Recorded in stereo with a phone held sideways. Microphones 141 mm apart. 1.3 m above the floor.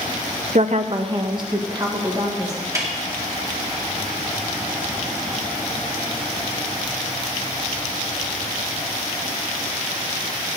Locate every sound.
0.6 s a woman speaking: 65° right (ahead or behind), 0.5 m; by 2.5 s 25° right (ahead or behind), 2.5 m
2.8 s a snare drum: 20° right (ahead or behind), 2 m